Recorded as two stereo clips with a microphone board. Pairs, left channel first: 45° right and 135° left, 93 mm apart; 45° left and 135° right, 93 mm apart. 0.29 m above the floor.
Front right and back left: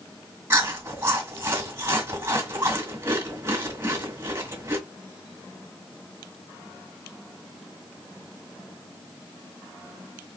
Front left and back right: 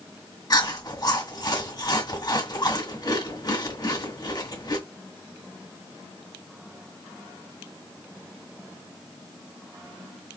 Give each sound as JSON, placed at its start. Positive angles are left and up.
{"t": 0.5, "sound": "chewing", "azimuth_deg": 80, "distance_m": 1.8}